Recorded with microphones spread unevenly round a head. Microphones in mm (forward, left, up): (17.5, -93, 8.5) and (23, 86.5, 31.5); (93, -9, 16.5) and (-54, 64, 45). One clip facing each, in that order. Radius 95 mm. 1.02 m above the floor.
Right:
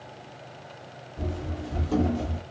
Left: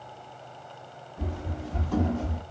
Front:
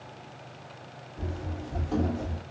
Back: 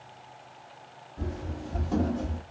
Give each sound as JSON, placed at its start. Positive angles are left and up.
{"t": 1.2, "sound": "running footsteps", "azimuth_deg": -145, "distance_m": 1.7}